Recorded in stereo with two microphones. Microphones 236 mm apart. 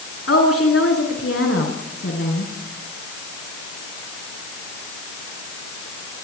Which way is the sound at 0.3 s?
70° left (ahead or behind).